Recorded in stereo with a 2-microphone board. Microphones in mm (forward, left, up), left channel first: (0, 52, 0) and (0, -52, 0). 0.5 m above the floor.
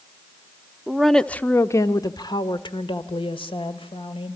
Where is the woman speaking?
5° right (ahead or behind), 0.8 m; by 4.4 s 65° left (ahead or behind), 2.5 m.